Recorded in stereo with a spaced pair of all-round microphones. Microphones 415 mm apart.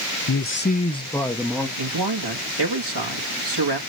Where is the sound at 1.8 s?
75° right (ahead or behind), 1.8 m.